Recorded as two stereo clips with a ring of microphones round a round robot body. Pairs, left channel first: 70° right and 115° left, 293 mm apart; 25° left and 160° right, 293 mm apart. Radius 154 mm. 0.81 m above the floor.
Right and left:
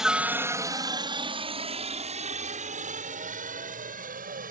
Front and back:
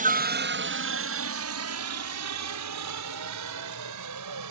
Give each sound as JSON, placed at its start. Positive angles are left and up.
{"t": 0.0, "sound": "a helicopter", "azimuth_deg": -160}